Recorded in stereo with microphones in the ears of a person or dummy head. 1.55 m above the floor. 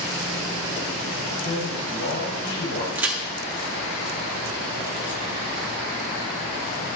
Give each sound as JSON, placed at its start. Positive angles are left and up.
{"t": 1.4, "sound": "a man speaking", "side_deg": 80, "distance_m": 5.0}
{"t": 3.0, "sound": "a crack", "side_deg": -10, "distance_m": 1.1}